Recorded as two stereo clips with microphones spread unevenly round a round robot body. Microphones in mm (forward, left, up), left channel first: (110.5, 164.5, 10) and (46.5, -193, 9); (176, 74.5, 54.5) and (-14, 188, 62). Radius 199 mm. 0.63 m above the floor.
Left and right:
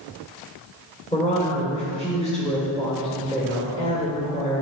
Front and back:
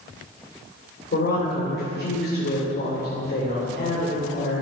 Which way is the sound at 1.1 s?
5° left.